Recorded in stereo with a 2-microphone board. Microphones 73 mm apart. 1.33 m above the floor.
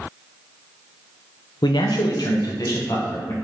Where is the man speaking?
85° left, 0.6 m; by 3.3 s 45° left (ahead or behind), 1.3 m.